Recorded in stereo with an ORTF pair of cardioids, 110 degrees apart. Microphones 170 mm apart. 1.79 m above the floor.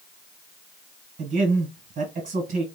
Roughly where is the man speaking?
Ahead right.